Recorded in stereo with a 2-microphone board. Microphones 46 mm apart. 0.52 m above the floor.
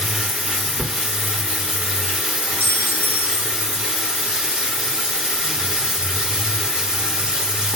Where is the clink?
45° right (ahead or behind), 0.5 m.